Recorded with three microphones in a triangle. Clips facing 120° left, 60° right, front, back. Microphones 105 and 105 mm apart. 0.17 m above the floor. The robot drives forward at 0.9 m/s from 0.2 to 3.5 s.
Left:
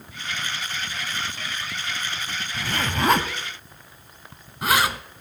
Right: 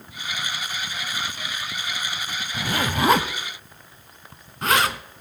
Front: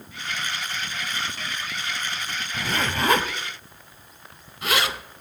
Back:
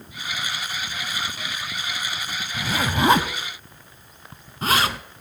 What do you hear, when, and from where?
2.5 s a zipper: 70° right, 0.7 m; by 5.0 s 160° right, 1.1 m